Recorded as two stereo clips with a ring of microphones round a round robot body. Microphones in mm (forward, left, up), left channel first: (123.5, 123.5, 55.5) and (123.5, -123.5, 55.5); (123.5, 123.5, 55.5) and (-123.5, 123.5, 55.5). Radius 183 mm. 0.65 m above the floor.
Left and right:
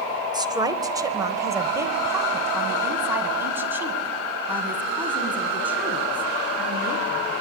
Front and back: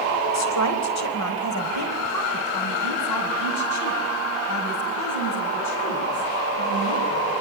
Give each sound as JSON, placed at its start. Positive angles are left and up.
{"t": 0.3, "sound": "a woman speaking", "azimuth_deg": -15, "distance_m": 3.5}